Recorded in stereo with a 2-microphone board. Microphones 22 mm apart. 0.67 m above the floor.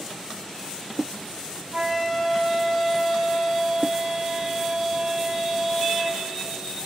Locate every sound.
1.7 s a flute: 25° right (ahead or behind), 1.3 m